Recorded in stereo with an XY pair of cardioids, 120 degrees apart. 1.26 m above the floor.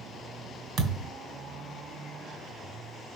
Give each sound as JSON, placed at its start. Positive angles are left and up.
{"t": 0.8, "sound": "a thud", "azimuth_deg": -70, "distance_m": 2.5}